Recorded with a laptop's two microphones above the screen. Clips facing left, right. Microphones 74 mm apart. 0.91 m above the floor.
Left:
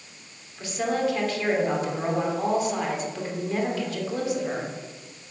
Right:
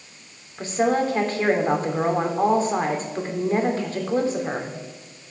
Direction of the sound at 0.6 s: 35° right (ahead or behind).